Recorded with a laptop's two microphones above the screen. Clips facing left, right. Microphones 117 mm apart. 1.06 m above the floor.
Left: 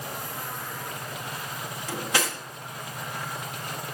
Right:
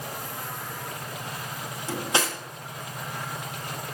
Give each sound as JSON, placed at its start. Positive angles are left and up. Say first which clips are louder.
{"t": 1.9, "sound": "cutlery clinking", "louder": "right 2 dB", "side_deg": -25, "distance_m": 0.8}